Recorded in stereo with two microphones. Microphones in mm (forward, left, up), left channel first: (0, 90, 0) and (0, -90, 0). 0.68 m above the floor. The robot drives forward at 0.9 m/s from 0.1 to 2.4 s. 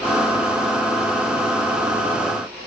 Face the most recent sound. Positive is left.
No sound to turn to.